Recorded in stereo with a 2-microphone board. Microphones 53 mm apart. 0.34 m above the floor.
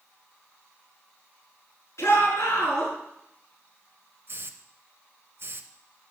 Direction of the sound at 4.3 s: 50° right (ahead or behind).